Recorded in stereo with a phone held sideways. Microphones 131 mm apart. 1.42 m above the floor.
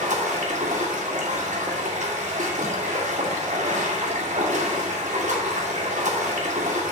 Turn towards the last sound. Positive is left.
turn(degrees=-70)  # may be behind; listen again after turning